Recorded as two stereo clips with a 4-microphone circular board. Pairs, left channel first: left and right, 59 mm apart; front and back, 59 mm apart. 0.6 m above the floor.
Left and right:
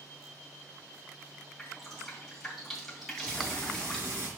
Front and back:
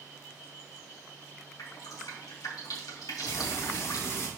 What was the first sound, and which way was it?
Dripping, 5° left.